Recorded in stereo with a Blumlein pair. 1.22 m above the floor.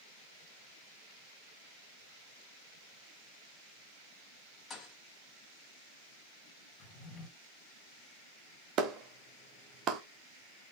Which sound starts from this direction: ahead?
A thud, at 4.7 s.